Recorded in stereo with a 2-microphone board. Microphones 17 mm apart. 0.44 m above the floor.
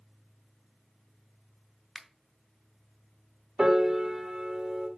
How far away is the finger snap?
About 0.8 m.